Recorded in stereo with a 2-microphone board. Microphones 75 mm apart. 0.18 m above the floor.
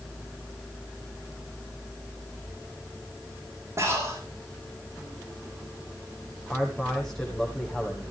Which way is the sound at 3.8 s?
40° right (ahead or behind).